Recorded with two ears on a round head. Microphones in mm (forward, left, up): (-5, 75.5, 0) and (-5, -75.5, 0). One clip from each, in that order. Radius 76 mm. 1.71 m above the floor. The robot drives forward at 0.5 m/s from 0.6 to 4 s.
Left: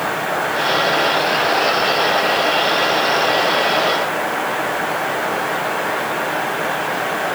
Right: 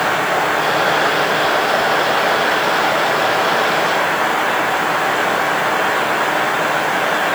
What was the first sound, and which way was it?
Only background noise.